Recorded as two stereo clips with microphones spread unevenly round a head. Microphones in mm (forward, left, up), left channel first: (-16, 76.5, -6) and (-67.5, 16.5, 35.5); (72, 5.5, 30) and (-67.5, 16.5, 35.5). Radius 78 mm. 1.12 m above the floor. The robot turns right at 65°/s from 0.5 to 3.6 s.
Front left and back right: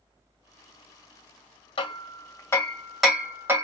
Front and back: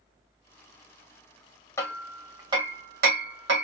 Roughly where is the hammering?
Left.